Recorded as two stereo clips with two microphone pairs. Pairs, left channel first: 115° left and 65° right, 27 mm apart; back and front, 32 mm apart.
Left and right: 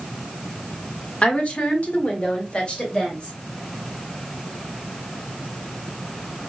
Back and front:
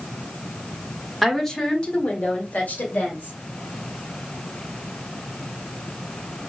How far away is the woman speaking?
About 1.3 m.